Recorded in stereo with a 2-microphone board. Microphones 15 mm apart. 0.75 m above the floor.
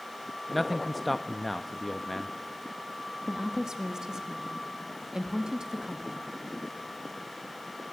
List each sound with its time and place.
0.5 s a man speaking: centre (ahead or behind), 0.7 m
3.3 s a woman speaking: 45° right (ahead or behind), 1.4 m